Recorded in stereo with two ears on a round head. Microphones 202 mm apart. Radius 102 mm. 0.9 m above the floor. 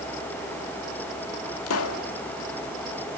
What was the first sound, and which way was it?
A pop, 70° left (ahead or behind).